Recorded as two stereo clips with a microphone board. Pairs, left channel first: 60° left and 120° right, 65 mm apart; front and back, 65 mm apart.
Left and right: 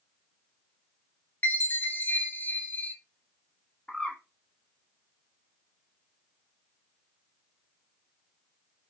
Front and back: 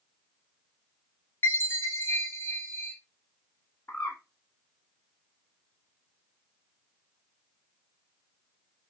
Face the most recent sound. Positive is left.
turn(degrees=0)